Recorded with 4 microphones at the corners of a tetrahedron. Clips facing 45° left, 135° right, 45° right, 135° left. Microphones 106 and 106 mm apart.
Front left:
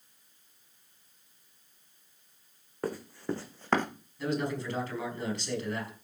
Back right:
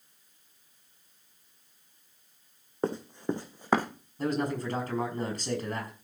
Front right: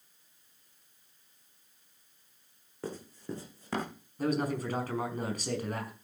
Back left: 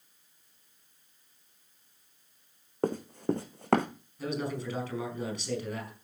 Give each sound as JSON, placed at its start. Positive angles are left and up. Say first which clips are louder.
{"t": 2.8, "sound": "running footsteps", "louder": "back right 3 dB, back left 10 dB", "azimuth_deg": 160, "distance_m": 2.0}
{"t": 4.2, "sound": "a man speaking", "louder": "back right 2 dB, front right 3 dB", "azimuth_deg": -90, "distance_m": 5.0}